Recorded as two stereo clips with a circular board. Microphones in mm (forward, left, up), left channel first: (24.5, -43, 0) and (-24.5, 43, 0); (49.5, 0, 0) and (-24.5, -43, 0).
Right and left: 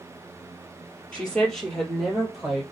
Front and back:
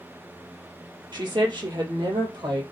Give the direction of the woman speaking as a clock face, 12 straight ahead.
5 o'clock.